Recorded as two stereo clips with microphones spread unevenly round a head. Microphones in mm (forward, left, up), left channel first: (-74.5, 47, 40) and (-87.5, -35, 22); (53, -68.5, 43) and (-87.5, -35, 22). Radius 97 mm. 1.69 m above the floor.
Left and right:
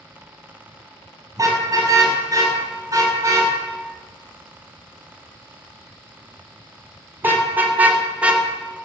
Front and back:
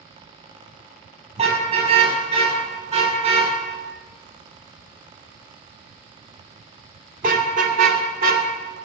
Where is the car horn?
150° right, 6.5 m; by 8.5 s 175° left, 1.9 m.